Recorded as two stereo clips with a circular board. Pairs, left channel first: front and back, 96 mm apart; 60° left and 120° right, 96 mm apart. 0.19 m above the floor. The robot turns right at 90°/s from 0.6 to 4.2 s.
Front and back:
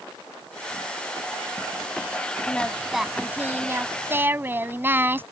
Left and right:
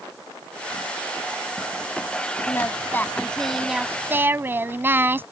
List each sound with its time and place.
2.5 s singing: 55° left; by 5.2 s 150° right